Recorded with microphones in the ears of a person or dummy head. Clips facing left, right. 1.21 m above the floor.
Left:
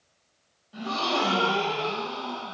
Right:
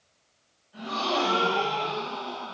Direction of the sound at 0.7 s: 60° left (ahead or behind).